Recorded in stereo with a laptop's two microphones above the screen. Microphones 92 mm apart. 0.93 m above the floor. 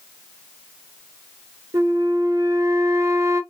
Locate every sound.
1.7 s a flute: 35° right (ahead or behind), 1.1 m